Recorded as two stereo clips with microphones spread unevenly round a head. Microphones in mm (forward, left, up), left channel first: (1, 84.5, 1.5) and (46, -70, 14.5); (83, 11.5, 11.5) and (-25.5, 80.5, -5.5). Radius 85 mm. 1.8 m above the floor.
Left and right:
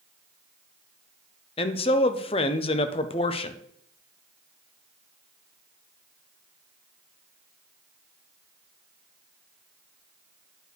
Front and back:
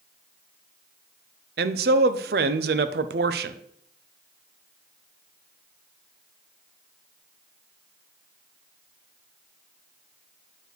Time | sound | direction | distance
1.6 | a man speaking | 170° left | 0.5 m